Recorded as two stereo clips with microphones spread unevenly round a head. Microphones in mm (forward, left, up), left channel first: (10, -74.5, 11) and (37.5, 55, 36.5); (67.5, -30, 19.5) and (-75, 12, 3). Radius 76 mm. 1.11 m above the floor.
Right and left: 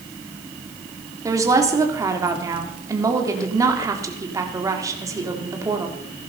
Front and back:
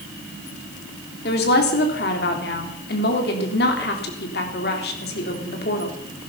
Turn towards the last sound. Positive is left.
turn(degrees=10)